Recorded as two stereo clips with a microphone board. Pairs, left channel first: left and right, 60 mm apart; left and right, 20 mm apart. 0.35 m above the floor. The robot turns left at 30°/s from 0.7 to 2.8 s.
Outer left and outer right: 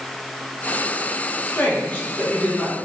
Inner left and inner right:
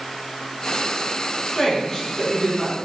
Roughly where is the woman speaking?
Ahead left.